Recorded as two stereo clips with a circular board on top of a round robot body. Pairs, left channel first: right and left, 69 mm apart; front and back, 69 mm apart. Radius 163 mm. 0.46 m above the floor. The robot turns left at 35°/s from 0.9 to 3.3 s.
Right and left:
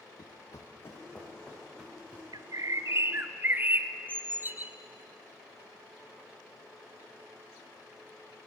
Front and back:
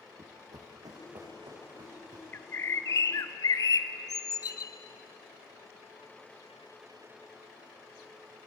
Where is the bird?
60° left, 0.5 m; by 4.7 s 30° left, 0.5 m.